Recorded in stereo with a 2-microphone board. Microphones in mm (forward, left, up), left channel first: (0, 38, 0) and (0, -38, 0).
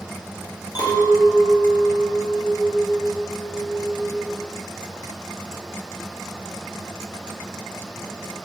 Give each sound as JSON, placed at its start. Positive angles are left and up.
{"t": 0.8, "sound": "a clink", "side_deg": 65, "distance_m": 0.6}